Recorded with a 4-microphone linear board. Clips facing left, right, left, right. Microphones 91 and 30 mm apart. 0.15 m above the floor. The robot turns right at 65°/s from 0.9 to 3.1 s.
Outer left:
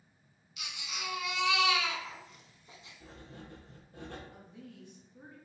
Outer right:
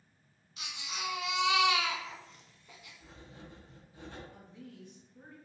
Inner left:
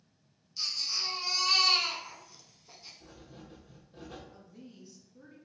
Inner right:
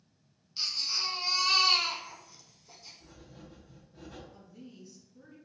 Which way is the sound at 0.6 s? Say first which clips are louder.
Outer right 2 dB, inner right 1 dB; 70° right.